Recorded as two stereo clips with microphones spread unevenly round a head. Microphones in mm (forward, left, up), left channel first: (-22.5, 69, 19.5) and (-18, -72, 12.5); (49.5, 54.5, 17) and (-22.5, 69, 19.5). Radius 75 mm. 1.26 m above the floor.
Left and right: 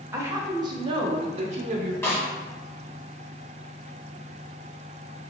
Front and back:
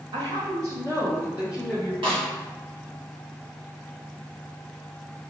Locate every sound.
0.1 s a woman speaking: 155° right, 1.1 m; by 1.9 s 95° right, 0.8 m
2.0 s a snare drum: 165° left, 1.8 m